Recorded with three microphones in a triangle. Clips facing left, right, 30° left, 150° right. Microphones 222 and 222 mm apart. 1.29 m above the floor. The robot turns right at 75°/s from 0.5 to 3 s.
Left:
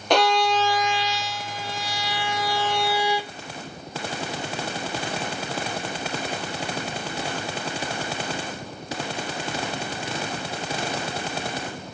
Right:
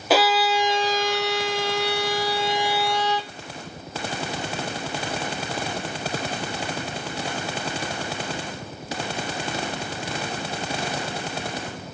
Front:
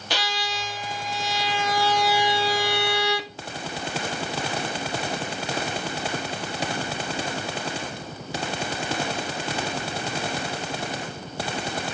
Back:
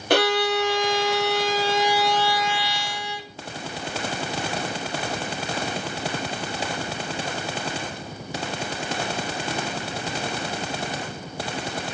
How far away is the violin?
About 0.5 m.